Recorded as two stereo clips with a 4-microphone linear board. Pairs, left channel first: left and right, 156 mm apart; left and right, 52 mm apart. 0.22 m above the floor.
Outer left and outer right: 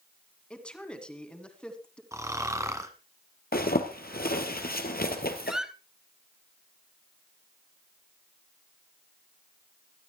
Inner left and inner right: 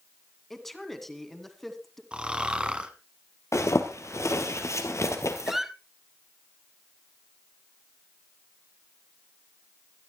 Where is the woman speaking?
5° left (ahead or behind), 2 m.